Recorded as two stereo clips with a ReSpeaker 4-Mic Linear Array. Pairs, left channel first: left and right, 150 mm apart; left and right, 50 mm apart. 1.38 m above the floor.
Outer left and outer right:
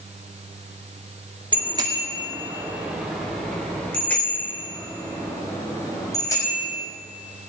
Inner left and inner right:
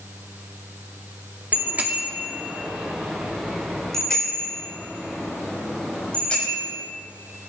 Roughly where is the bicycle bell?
Right.